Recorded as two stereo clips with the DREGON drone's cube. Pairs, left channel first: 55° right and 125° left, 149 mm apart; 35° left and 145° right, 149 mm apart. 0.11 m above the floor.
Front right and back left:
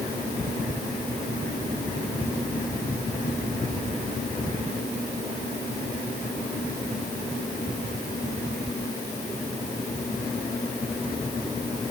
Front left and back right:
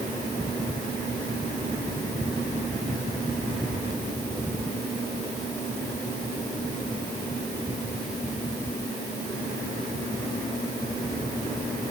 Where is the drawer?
No drawer in this recording.